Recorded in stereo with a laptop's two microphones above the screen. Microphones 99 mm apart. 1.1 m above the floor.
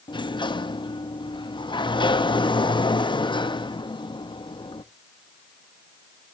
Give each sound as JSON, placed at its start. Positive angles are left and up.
{"t": 0.1, "sound": "a sliding door", "side_deg": 55, "distance_m": 0.6}